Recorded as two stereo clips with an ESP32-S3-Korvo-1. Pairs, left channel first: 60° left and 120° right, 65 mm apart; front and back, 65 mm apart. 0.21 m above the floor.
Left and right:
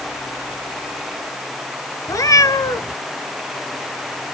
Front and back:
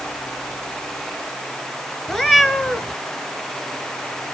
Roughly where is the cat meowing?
Left.